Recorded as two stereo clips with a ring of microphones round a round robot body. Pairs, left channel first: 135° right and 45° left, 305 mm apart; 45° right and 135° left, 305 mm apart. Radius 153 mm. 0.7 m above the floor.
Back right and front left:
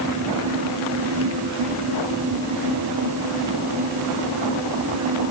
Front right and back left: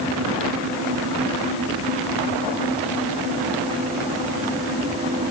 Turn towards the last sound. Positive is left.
No sound to turn to.